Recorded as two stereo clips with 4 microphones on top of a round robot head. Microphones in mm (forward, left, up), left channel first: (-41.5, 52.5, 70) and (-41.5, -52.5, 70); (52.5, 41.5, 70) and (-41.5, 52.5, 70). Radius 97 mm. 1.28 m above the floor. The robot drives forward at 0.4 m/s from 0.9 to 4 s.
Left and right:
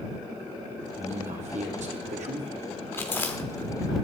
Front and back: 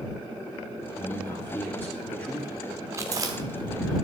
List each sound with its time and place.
1.0 s a man speaking: 75° right, 3 m; by 2.5 s 85° right, 3 m
2.9 s chewing: 140° left, 1.0 m; by 3.7 s 155° left, 1.1 m